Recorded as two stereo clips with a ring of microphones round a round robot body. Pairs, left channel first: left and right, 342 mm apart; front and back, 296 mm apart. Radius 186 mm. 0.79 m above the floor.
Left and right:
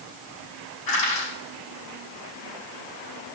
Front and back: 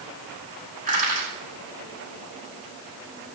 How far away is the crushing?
About 9 m.